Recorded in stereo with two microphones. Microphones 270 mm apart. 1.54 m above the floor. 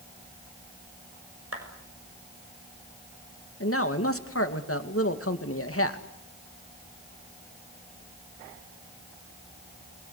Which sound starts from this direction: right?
A clap, at 1.5 s.